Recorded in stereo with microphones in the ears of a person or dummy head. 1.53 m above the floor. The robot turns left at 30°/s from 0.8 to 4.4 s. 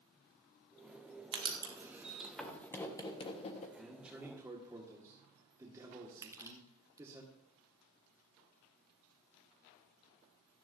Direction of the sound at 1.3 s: 25° right (ahead or behind).